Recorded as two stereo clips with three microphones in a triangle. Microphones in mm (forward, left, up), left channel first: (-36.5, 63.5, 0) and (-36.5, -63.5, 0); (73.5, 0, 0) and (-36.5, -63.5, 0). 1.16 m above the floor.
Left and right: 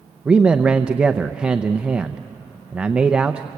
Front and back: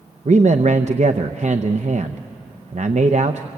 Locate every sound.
0.2 s a man speaking: 170° right, 0.7 m